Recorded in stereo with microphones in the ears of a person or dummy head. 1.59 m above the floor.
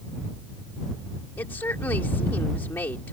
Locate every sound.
1.4 s a woman speaking: 15° left (ahead or behind)